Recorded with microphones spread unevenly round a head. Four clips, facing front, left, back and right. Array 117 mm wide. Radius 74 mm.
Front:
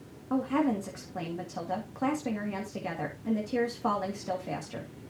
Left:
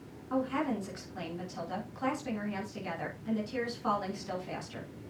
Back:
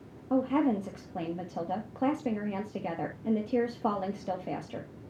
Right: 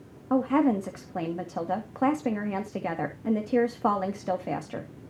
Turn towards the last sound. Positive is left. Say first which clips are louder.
# right 9 dB, back 1 dB
turn(degrees=-110)